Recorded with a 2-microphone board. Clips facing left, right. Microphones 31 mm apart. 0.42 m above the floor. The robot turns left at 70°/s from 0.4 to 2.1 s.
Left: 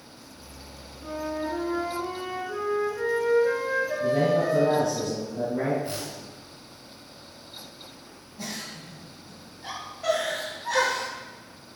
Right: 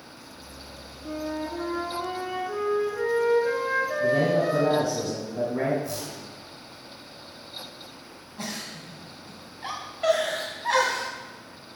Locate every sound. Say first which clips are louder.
1.0 s a flute: left 1 dB; 60° left, 3 m; by 4.8 s 15° right, 3 m
4.0 s a man speaking: even; 30° right (ahead or behind), 3.5 m
5.8 s a whoosh: even; 40° left (ahead or behind), 3 m
8.4 s a giggle: right 1 dB; 60° right (ahead or behind), 3.5 m